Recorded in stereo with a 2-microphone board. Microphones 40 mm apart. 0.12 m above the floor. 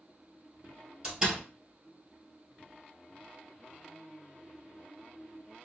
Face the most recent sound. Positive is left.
turn(degrees=-20)  # may be behind; listen again after turning